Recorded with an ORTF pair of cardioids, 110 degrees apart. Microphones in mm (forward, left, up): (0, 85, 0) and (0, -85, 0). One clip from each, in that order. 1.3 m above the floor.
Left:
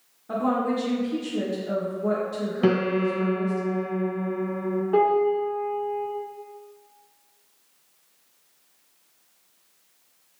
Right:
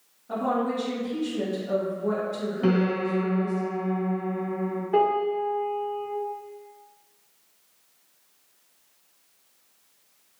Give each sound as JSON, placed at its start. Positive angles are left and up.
{"t": 0.3, "sound": "a woman speaking", "azimuth_deg": 45, "distance_m": 1.1}
{"t": 2.6, "sound": "a piano", "azimuth_deg": 30, "distance_m": 0.7}
{"t": 4.9, "sound": "a piano", "azimuth_deg": 20, "distance_m": 1.6}